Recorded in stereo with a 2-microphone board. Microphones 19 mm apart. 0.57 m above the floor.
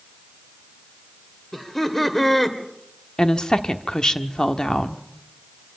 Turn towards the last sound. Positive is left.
turn(degrees=45)  # may be behind; listen again after turning